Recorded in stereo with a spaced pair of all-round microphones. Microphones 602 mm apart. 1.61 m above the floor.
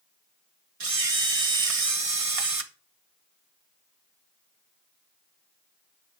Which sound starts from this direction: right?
A camera shutter, at 0.8 s.